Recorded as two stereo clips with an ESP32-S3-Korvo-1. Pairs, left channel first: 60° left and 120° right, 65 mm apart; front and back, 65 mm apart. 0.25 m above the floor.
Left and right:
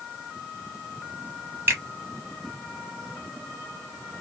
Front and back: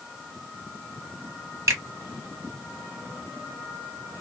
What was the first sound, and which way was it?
A finger snap, 165° right.